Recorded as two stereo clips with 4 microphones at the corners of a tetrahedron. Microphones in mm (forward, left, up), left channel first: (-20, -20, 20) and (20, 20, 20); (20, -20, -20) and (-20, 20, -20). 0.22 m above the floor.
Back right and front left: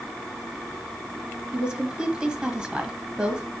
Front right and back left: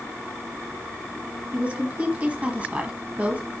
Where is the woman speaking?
105° left, 1.2 m.